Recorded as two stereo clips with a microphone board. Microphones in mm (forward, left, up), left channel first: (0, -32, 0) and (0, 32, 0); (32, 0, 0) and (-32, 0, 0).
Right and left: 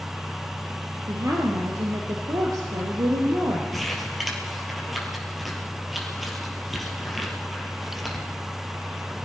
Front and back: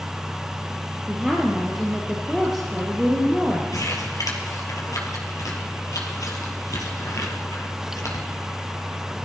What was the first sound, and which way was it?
A woman speaking, 90° left.